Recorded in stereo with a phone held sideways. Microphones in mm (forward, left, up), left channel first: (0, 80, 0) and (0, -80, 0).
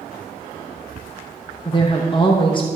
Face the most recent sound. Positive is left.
turn(degrees=30)  # may be behind; listen again after turning